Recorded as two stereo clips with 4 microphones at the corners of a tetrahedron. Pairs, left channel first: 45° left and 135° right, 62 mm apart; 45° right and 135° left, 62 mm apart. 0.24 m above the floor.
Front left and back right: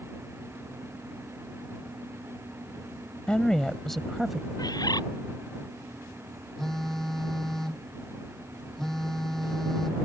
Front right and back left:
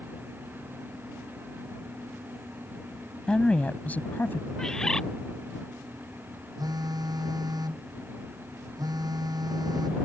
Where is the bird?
35° left.